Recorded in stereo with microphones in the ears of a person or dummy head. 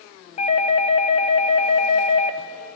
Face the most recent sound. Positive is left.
turn(degrees=30)  # may be behind; listen again after turning